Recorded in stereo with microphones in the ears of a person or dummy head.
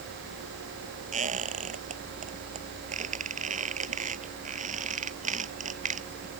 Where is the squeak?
35° right (ahead or behind).